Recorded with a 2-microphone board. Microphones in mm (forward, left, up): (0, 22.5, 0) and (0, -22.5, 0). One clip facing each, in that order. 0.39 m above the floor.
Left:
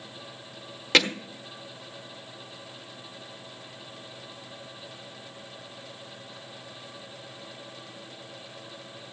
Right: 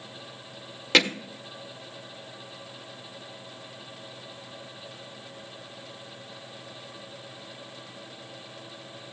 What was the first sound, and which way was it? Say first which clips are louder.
Hammering: right 1 dB; centre (ahead or behind).